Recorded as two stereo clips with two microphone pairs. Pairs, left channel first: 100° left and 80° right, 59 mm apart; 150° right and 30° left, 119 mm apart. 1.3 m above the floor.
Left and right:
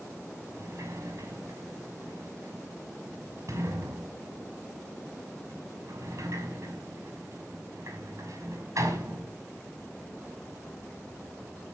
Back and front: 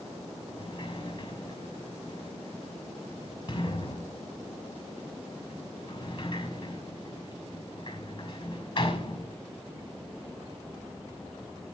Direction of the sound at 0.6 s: 110° right.